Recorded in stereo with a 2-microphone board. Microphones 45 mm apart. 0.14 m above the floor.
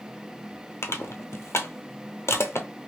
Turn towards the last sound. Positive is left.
turn(degrees=80)